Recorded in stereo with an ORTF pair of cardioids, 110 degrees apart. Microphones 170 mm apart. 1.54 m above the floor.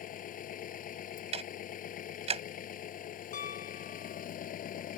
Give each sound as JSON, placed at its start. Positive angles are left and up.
{"t": 0.0, "sound": "an engine running", "azimuth_deg": 55}
{"t": 1.3, "sound": "ticking", "azimuth_deg": -40}
{"t": 3.3, "sound": "a piano", "azimuth_deg": 50}